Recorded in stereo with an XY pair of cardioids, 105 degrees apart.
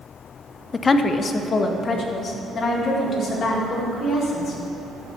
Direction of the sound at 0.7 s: 30° left.